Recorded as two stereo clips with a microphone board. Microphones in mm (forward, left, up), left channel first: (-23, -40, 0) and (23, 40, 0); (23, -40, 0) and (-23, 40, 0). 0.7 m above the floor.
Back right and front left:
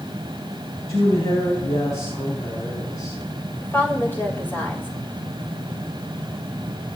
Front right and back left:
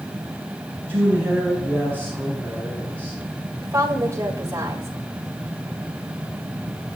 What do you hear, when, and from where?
0.9 s a woman speaking: 130° right, 6.5 m; by 3.2 s 140° right, 6.5 m
3.6 s a woman speaking: 175° left, 3.5 m